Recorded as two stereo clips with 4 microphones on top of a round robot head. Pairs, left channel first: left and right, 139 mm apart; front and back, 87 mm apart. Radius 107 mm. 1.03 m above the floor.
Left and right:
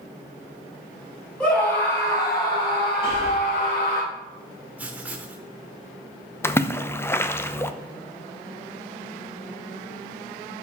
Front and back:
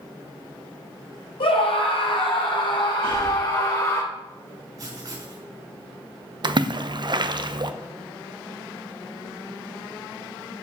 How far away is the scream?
About 3.5 m.